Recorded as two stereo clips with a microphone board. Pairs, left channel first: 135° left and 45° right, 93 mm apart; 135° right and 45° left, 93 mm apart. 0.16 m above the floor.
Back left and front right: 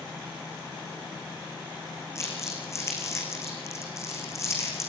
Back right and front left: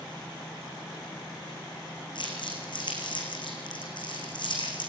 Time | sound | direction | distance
2.1 | crumpling | 165° right | 5 m